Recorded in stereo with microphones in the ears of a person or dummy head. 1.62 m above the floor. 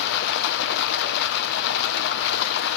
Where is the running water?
60° left (ahead or behind), 0.8 m.